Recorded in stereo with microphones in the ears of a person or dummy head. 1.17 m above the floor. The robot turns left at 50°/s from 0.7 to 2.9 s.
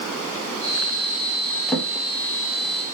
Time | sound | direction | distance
1.7 | a drawer | 5° left (ahead or behind) | 0.7 m